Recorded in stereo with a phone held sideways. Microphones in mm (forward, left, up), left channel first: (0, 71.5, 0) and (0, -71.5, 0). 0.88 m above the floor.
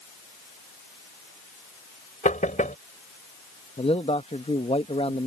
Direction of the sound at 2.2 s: 60° left (ahead or behind).